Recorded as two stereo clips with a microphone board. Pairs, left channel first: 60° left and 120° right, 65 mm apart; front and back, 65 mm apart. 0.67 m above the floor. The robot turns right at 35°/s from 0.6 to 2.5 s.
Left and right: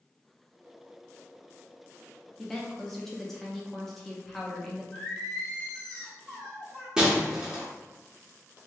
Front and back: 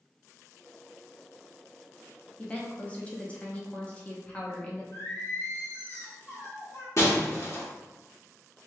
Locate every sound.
2.4 s a woman speaking: 20° right, 0.6 m; by 4.8 s 15° right, 0.6 m
4.9 s singing: 10° right, 1.5 m
7.0 s breaking glass: 45° right, 1.0 m